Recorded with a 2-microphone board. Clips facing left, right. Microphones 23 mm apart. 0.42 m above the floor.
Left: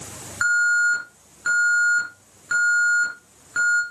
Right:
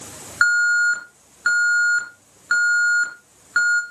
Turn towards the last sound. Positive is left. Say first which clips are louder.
# right 2 dB
turn(degrees=-35)  # may be behind; listen again after turning